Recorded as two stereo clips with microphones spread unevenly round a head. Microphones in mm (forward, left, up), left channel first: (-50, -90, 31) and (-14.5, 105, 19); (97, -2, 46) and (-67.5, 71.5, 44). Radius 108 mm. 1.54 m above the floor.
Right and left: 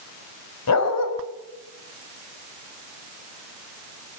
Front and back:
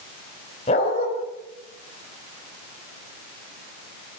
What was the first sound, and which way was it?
A dog barking, 85° right.